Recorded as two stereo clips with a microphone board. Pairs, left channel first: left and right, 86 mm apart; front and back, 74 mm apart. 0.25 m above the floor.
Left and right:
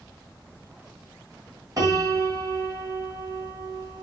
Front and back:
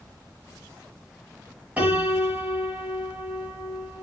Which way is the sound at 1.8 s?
115° right.